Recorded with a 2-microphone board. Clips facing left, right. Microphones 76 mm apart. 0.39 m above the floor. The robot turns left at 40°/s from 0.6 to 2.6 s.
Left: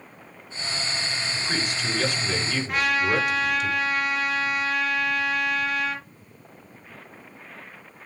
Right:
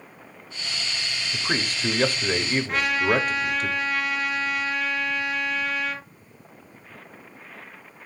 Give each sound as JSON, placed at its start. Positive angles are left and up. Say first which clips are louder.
{"t": 1.3, "sound": "a man speaking", "louder": "right 4 dB", "azimuth_deg": -60, "distance_m": 1.7}
{"t": 2.7, "sound": "a trumpet", "louder": "left 1 dB", "side_deg": 0, "distance_m": 6.5}